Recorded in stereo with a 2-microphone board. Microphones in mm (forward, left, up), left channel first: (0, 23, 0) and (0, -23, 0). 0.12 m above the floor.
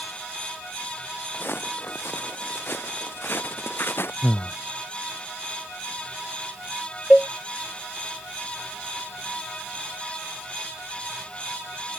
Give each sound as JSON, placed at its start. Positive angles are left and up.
{"t": 1.3, "sound": "footsteps", "side_deg": 55}
{"t": 4.2, "sound": "breathing", "side_deg": 70}
{"t": 7.1, "sound": "a cowbell", "side_deg": 15}